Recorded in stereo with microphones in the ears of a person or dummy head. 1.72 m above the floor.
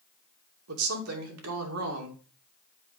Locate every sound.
0.7 s a woman speaking: 85° right, 2.5 m